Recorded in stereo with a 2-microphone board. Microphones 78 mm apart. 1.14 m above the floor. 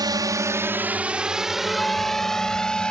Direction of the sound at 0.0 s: 60° right (ahead or behind).